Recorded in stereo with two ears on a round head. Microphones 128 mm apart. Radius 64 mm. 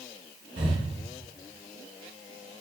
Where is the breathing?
35° right (ahead or behind), 0.6 m.